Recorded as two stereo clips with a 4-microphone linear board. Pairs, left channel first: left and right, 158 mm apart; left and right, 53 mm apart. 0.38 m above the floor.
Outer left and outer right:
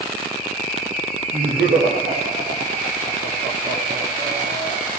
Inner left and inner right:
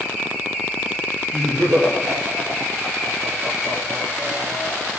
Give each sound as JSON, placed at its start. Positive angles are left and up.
{"t": 1.3, "sound": "laughter", "side_deg": -85, "distance_m": 7.0}